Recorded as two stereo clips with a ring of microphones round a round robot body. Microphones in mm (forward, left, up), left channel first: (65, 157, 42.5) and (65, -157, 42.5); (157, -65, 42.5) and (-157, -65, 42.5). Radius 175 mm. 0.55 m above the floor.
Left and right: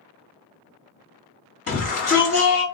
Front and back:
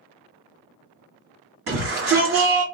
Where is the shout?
145° left, 1.9 m.